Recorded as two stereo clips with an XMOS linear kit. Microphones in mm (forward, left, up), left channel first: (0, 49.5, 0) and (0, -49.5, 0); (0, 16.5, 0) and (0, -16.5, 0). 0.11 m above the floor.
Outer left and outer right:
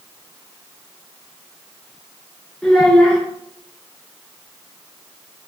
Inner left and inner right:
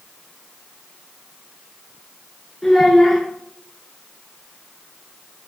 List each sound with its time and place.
2.6 s a child speaking: 5° left (ahead or behind), 0.9 m